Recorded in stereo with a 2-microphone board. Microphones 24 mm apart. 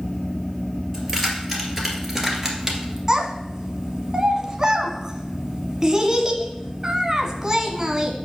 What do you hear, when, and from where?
0.9 s keys jangling: 5° left (ahead or behind), 2.5 m; by 3.0 s 20° right (ahead or behind), 1.8 m
3.1 s a child speaking: 25° right (ahead or behind), 1.1 m